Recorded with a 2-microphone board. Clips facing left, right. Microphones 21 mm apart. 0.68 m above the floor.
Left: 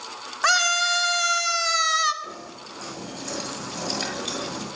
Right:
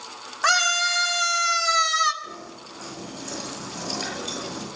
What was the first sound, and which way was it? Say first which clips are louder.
A scream: even; 5° left (ahead or behind).